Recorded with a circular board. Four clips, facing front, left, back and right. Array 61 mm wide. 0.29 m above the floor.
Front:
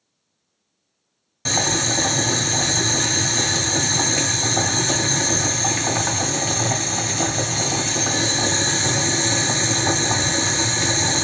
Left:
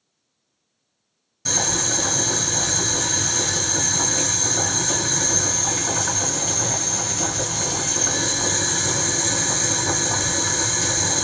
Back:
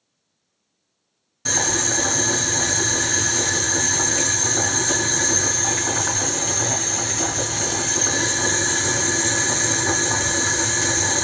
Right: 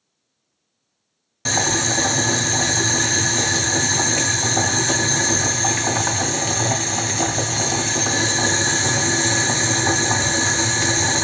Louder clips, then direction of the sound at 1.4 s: Right 5 dB, front 1 dB; 65° right.